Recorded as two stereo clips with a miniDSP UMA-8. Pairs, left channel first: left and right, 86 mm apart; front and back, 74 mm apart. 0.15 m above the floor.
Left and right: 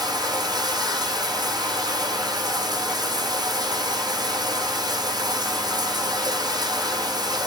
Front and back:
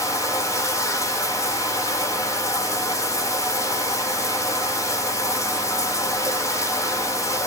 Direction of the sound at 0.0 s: 50° right.